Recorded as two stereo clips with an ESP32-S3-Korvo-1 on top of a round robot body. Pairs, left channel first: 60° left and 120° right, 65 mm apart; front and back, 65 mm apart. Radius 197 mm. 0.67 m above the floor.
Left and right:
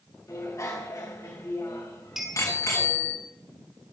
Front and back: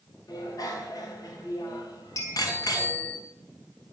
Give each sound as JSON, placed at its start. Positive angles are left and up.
{"t": 0.3, "sound": "a bicycle bell", "azimuth_deg": 25, "distance_m": 3.0}
{"t": 2.2, "sound": "a clink", "azimuth_deg": -35, "distance_m": 4.5}